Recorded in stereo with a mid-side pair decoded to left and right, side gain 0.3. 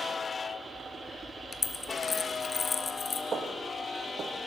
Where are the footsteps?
65° right, 3.5 m.